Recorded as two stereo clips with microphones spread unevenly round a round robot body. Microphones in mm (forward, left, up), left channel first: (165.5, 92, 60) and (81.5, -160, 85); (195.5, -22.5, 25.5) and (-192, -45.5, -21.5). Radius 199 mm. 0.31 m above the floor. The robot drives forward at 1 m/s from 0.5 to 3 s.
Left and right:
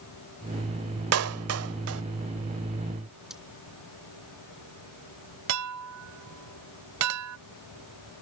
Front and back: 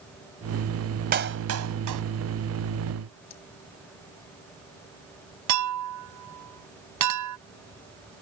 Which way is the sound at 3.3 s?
20° right.